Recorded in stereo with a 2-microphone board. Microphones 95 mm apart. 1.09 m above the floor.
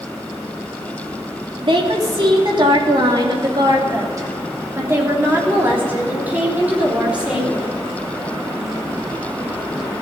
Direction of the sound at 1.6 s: 65° right (ahead or behind).